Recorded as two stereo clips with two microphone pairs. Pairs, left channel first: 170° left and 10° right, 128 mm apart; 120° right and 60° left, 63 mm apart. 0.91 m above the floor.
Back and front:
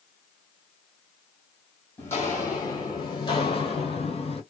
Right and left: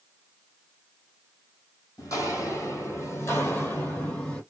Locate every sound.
2.0 s footsteps: 125° right, 1.5 m; by 4.4 s 175° left, 1.4 m